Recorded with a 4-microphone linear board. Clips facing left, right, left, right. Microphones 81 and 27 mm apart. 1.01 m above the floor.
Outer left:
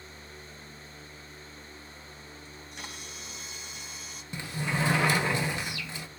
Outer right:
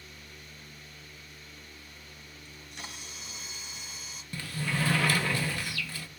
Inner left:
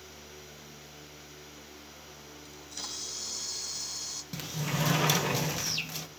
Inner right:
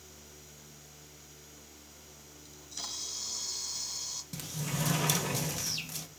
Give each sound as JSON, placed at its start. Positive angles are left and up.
{"t": 2.5, "sound": "a camera shutter", "side_deg": 0, "distance_m": 1.2}
{"t": 4.3, "sound": "a sliding door", "side_deg": 20, "distance_m": 0.5}